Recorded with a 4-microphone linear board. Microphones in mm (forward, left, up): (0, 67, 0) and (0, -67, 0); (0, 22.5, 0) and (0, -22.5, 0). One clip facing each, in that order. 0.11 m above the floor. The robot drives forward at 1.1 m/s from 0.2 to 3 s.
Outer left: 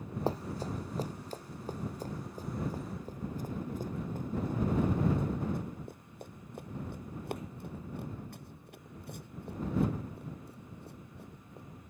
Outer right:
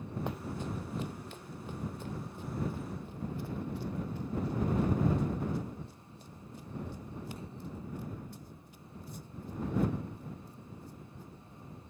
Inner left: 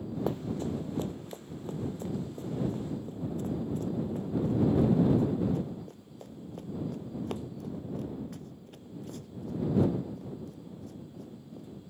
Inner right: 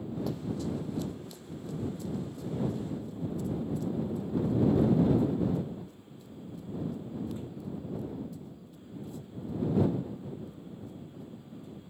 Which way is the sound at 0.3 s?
35° left (ahead or behind).